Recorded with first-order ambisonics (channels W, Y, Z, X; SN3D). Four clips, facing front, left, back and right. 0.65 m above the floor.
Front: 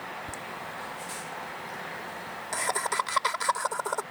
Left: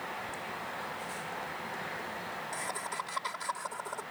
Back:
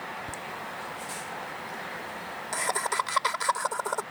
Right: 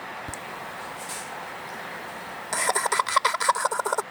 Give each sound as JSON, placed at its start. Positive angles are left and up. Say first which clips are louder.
{"t": 0.3, "sound": "laughter", "louder": "right 3 dB, back 1 dB", "azimuth_deg": -90}